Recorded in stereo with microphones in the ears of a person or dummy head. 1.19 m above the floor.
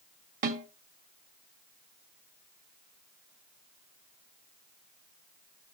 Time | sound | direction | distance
0.4 | a snare drum | 50° right (ahead or behind) | 1.6 m